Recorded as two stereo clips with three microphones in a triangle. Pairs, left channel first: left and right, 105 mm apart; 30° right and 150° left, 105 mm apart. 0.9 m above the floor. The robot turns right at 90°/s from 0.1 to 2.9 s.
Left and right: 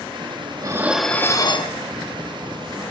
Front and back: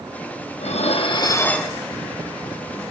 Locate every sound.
0.6 s dishes clattering: 35° right, 0.8 m; by 1.7 s 65° left, 0.8 m